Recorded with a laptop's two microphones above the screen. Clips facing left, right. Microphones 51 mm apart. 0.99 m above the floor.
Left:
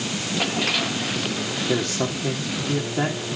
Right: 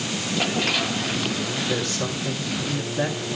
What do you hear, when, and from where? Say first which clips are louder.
1.7 s a man speaking: left 2 dB; 70° left (ahead or behind), 2.5 m